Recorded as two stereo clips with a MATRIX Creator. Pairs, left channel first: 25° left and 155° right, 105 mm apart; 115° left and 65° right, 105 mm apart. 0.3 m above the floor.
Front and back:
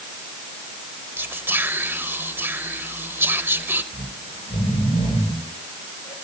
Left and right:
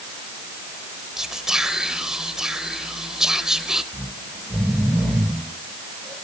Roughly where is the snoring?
Ahead left.